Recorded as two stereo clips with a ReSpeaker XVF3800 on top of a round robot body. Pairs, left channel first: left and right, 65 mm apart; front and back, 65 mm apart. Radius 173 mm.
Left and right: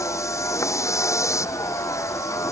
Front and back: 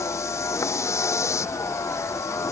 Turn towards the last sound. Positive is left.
turn(degrees=45)